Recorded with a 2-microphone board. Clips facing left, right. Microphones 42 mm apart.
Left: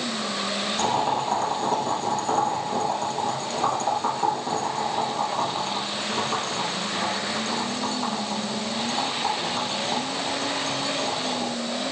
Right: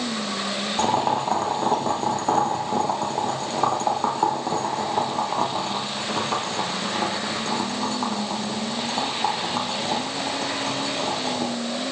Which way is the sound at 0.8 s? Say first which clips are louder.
Right 3 dB; 40° right (ahead or behind).